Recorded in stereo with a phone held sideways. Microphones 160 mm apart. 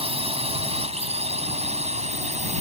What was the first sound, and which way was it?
A drone, 35° right (ahead or behind).